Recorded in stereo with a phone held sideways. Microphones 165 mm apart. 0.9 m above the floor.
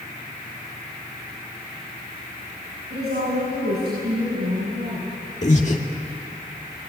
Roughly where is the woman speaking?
Right.